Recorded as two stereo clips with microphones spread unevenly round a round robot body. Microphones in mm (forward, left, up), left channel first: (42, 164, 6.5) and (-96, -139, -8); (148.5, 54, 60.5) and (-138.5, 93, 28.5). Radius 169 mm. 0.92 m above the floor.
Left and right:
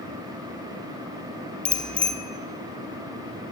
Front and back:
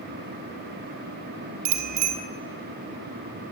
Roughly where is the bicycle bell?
Behind left.